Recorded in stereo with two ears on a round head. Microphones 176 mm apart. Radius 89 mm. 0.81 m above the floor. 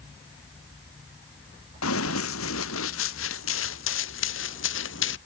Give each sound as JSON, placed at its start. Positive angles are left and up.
{"t": 1.8, "sound": "running footsteps", "side_deg": 75}